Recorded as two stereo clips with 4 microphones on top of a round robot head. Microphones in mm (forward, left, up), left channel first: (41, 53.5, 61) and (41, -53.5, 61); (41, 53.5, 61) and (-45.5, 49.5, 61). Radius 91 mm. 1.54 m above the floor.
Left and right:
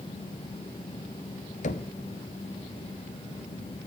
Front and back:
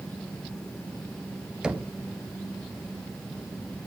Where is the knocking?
100° left, 1.0 m.